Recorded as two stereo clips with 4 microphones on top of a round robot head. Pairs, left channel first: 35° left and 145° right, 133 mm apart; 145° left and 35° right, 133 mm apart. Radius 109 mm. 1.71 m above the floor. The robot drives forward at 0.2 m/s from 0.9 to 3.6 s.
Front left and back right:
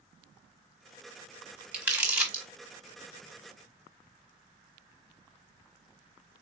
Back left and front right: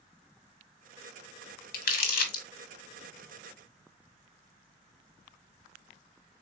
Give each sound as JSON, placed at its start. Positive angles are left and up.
{"t": 1.7, "sound": "crumpling", "azimuth_deg": 135, "distance_m": 1.0}